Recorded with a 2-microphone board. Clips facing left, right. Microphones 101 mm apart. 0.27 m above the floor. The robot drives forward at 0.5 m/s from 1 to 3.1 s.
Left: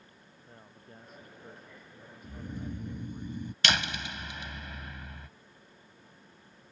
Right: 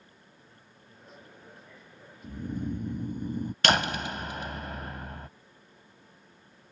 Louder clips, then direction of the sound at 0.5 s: Left 4 dB; 50° left (ahead or behind).